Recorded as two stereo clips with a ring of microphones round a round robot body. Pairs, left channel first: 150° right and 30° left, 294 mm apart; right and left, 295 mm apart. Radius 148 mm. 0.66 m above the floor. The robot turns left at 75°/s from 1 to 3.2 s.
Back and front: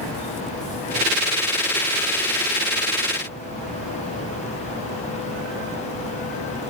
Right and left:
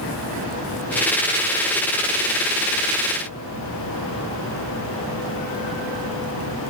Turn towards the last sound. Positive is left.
No sound to turn to.